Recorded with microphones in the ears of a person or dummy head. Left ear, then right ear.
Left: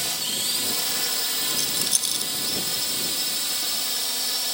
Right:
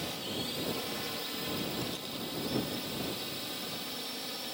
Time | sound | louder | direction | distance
0.0 | a drone | left 10 dB | 50° left (ahead or behind) | ?
1.5 | a rattle | left 11 dB | 80° left | ?